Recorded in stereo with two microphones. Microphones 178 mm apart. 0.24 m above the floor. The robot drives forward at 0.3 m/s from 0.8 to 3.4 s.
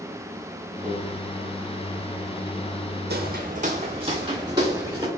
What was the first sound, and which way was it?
A microwave, 40° right (ahead or behind).